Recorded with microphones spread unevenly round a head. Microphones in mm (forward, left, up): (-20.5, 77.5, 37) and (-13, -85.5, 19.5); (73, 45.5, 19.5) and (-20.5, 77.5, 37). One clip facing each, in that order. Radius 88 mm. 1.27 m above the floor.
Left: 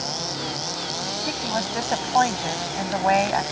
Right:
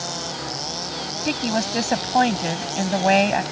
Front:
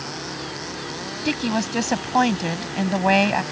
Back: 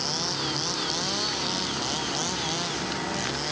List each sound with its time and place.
1.2 s a woman speaking: 25° right